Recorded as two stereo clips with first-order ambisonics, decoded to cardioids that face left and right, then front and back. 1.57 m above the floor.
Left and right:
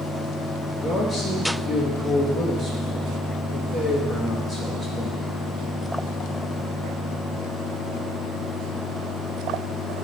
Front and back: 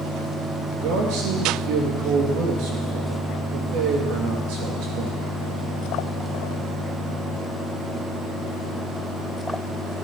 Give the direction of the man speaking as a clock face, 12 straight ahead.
6 o'clock.